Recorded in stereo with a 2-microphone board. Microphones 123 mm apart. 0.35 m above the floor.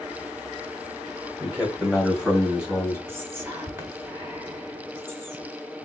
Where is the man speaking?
15° right (ahead or behind), 1.7 m; by 3.0 s 5° right (ahead or behind), 2.5 m.